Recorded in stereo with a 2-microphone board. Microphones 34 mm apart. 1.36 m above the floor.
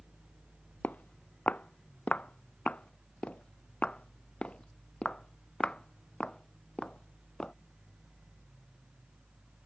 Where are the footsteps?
50° left (ahead or behind); by 7.5 s 25° left (ahead or behind).